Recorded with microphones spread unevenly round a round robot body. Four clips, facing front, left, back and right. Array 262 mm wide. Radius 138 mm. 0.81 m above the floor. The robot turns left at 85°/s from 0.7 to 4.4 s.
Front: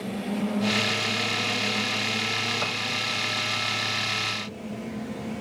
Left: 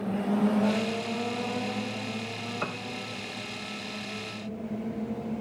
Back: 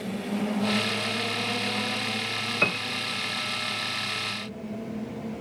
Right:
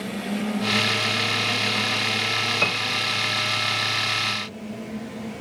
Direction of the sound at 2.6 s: 170° right.